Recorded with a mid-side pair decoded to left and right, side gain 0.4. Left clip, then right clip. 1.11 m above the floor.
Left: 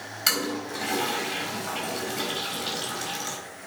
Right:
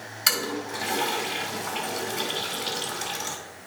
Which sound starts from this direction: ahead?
A toilet flushing, at 0.3 s.